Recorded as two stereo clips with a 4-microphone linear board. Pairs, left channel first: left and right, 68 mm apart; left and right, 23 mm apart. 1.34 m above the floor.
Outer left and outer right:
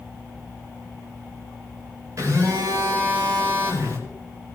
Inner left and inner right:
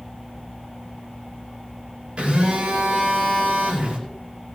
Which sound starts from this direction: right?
A phone buzzing, at 2.2 s.